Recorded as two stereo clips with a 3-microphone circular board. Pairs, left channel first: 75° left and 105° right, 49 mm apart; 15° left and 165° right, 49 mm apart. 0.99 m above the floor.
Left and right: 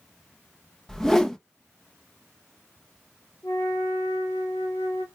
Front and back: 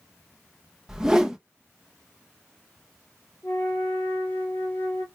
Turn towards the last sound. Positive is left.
turn(degrees=65)